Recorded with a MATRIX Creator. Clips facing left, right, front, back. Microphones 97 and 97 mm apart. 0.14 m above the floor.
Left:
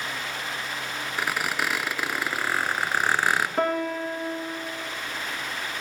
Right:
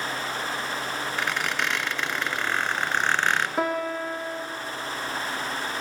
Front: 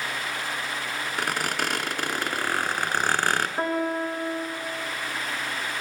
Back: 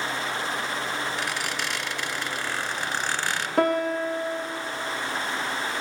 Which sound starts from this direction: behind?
A piano, at 3.6 s.